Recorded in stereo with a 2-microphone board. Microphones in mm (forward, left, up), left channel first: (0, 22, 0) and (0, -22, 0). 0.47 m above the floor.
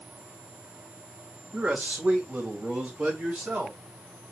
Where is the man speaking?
40° right (ahead or behind), 1.4 m; by 3.8 s 50° right (ahead or behind), 3.5 m.